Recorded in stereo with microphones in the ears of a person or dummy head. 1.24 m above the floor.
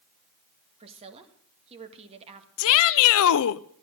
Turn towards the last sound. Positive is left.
turn(degrees=80)